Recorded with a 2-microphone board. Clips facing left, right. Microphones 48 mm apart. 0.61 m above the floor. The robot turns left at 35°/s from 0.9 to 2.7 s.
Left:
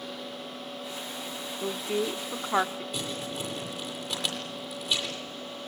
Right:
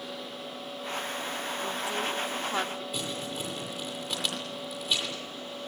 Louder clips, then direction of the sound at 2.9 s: Even; centre (ahead or behind).